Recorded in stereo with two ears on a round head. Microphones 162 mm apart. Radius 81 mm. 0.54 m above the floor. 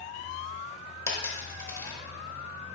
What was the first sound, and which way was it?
A dropped coin, 15° left (ahead or behind).